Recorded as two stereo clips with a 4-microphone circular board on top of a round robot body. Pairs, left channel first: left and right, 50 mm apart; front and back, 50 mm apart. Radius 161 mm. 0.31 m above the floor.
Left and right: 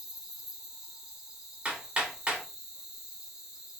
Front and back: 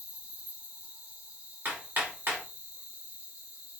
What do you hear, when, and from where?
0.0 s an insect: 160° right, 1.3 m
1.6 s hammering: 145° right, 1.4 m